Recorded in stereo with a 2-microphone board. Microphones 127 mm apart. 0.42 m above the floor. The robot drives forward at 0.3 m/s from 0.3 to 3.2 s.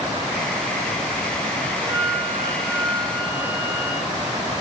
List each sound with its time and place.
1.8 s a flute: 40° right (ahead or behind), 1.5 m; by 4.1 s 30° right (ahead or behind), 1.8 m